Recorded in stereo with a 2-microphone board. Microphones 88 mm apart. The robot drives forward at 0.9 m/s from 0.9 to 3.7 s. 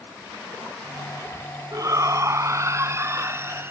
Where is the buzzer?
No buzzer in this recording.